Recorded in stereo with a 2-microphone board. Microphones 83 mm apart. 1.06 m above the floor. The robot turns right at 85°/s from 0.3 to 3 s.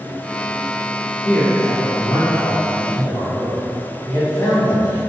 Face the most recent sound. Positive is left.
turn(degrees=160)